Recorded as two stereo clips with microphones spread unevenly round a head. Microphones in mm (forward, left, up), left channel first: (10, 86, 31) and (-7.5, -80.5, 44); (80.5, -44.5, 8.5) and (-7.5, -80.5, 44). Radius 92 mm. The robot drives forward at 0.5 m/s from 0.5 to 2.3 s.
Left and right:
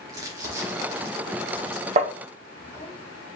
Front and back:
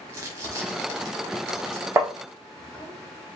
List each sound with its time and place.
0.1 s crumpling: 155° right, 1.1 m; by 3.0 s 170° right, 1.8 m
2.0 s tapping: 135° right, 0.6 m; by 2.1 s 140° right, 0.6 m